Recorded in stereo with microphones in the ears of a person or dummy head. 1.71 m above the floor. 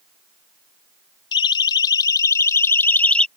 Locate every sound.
1.3 s a siren: 25° left (ahead or behind); by 3.3 s centre (ahead or behind)